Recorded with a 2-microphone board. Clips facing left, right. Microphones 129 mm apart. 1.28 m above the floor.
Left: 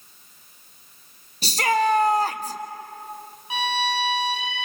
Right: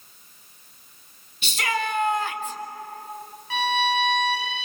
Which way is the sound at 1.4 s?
35° left (ahead or behind).